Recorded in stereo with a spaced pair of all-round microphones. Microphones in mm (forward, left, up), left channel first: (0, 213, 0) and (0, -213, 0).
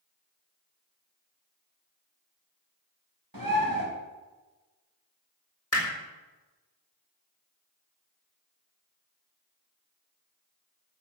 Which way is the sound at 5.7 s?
35° left (ahead or behind).